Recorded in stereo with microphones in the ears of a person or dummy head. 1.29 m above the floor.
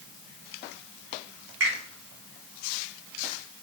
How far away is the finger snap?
About 1.5 m.